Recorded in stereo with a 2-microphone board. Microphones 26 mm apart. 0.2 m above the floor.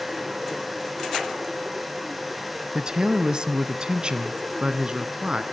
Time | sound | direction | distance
2.8 | a man speaking | 25° right (ahead or behind) | 1.0 m